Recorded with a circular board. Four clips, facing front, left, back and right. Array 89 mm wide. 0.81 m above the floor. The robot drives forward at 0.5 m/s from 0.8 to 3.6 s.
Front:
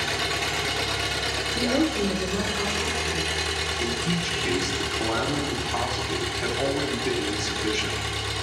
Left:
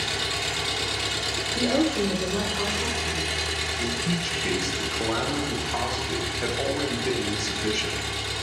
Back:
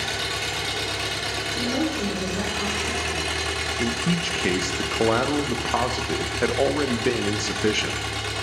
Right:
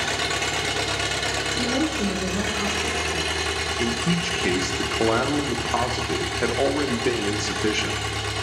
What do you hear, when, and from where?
0.0 s an engine running: 75° right, 1.2 m; by 8.4 s 135° right, 1.6 m
1.6 s a woman speaking: 50° left, 3 m; by 3.3 s 65° left, 2.5 m
3.8 s a man speaking: 150° right, 0.7 m